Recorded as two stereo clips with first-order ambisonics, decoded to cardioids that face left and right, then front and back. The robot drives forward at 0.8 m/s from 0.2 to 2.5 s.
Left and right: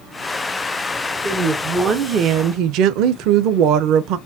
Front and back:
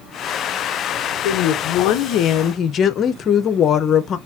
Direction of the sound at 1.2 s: 15° right.